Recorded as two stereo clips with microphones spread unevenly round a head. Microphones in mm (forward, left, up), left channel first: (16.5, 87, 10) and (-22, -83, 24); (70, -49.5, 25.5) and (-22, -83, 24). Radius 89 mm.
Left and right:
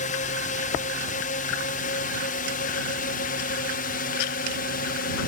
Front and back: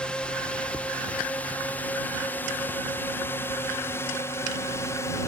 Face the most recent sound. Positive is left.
turn(degrees=80)